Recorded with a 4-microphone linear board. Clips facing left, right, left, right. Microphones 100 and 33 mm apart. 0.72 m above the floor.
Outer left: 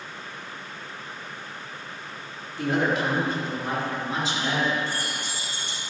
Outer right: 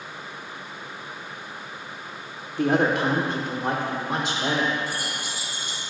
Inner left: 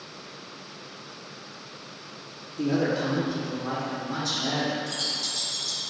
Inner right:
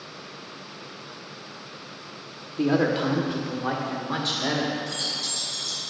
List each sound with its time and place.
2.6 s a woman speaking: 50° right (ahead or behind), 1.6 m; by 4.8 s 70° right (ahead or behind), 3 m
4.9 s keys jangling: 10° right (ahead or behind), 3.5 m